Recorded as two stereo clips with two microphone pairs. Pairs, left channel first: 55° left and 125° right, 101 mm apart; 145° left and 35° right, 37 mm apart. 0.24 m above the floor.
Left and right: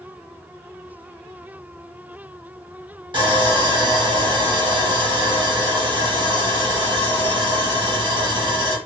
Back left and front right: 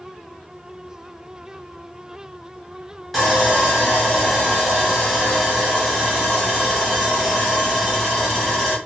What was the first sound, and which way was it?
Sawing, 125° right.